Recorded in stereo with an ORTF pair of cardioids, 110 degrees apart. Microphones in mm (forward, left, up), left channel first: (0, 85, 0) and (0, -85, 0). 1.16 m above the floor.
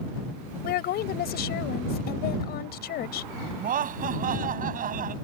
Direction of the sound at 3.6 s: 55° right.